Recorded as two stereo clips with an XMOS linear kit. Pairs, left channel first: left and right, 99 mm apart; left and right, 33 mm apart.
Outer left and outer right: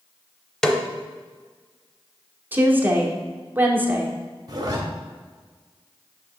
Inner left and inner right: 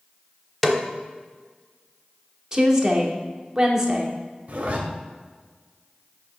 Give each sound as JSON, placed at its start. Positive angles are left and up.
{"t": 0.6, "sound": "a snare drum", "side_deg": 5, "distance_m": 0.6}
{"t": 2.5, "sound": "a woman speaking", "side_deg": -20, "distance_m": 0.9}
{"t": 4.5, "sound": "a zipper", "side_deg": -40, "distance_m": 1.0}